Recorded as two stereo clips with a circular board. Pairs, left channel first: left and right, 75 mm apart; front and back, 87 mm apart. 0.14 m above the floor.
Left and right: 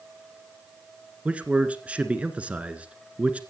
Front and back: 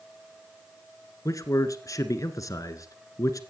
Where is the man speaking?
25° right, 1.7 m.